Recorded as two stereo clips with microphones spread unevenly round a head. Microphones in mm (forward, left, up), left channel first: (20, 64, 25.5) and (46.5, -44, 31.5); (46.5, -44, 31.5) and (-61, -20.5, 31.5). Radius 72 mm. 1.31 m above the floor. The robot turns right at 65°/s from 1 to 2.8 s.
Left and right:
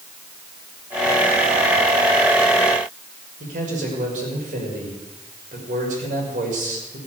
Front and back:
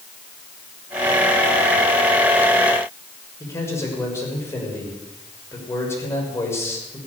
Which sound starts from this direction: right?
A man speaking, at 3.4 s.